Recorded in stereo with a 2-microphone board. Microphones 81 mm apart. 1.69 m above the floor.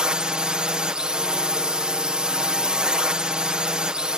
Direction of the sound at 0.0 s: 10° right (ahead or behind).